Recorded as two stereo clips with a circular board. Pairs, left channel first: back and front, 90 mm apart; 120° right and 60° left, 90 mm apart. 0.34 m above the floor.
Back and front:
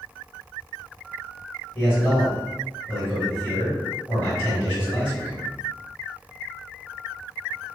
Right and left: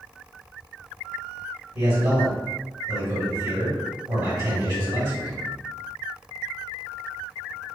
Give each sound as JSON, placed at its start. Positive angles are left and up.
{"t": 1.8, "sound": "a man speaking", "azimuth_deg": 100, "distance_m": 1.7}